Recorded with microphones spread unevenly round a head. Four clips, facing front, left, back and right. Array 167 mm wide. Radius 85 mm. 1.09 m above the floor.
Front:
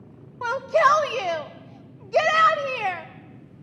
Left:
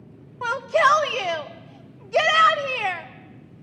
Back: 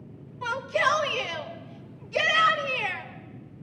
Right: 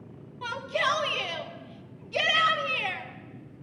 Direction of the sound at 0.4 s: 35° left.